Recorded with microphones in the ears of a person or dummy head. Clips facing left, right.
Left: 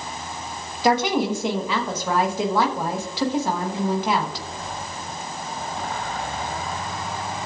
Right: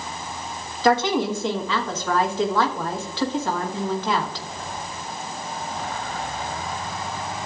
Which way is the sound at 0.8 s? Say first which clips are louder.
Even; 15° left (ahead or behind).